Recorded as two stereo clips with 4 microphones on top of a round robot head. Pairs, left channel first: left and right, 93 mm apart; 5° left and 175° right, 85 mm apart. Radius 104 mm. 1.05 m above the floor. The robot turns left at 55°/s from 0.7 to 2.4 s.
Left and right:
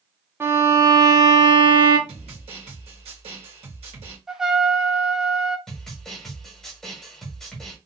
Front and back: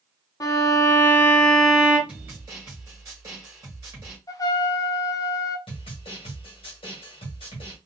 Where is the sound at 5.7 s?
10° left, 1.1 m.